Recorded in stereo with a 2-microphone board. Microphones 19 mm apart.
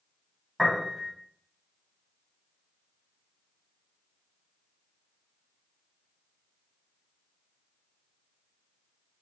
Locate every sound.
0.6 s a piano: 10° right (ahead or behind), 1.8 m